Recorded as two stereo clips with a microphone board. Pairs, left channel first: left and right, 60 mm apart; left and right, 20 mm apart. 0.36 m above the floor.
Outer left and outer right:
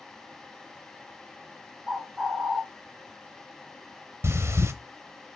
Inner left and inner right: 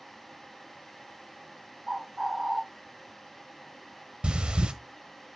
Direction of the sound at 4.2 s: 50° right (ahead or behind).